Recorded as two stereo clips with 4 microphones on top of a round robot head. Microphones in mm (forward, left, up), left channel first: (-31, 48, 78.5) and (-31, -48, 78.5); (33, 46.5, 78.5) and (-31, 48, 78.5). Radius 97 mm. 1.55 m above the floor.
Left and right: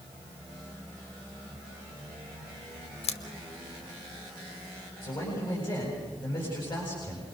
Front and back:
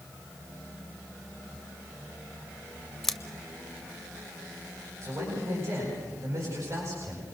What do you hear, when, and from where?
3.0 s scissors: 85° left, 0.6 m
5.0 s a man speaking: 130° left, 8.5 m